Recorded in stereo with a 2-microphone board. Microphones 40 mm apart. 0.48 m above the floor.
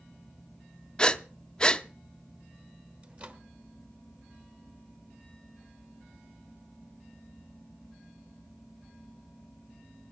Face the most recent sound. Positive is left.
turn(degrees=-35)  # may be behind; listen again after turning